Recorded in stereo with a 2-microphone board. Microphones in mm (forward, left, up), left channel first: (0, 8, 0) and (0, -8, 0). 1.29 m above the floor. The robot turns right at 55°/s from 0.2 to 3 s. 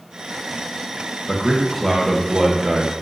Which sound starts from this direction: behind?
A man speaking, at 1.3 s.